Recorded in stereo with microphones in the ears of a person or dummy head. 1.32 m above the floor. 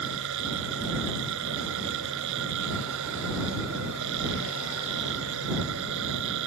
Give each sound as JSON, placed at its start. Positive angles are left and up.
{"t": 0.0, "sound": "a machine running", "side_deg": -70}